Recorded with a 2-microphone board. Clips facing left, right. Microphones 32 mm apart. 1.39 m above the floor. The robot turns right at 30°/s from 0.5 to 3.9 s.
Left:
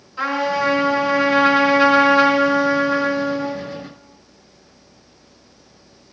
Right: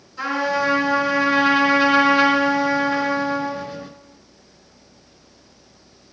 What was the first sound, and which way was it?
A trumpet, 145° left.